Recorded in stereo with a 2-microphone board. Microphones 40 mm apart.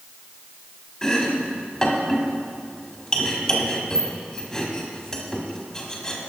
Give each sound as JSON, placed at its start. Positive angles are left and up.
{"t": 1.0, "sound": "chopping", "side_deg": 15, "distance_m": 1.3}